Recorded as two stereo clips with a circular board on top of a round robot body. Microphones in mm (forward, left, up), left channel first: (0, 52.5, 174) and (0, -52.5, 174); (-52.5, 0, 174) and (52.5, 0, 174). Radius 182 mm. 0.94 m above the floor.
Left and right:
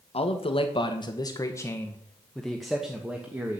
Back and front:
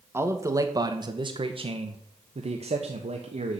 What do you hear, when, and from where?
0.1 s a man speaking: 65° left, 1.3 m; by 3.6 s 15° right, 1.6 m